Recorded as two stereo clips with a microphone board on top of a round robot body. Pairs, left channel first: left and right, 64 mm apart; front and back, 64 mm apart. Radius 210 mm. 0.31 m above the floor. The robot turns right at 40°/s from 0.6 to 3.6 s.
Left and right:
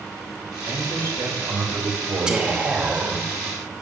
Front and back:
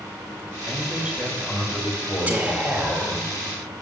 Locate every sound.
0.7 s a man speaking: 120° right, 2 m; by 3.3 s 15° right, 2 m
2.3 s whispering: 155° right, 1.4 m; by 3.2 s 115° right, 1.4 m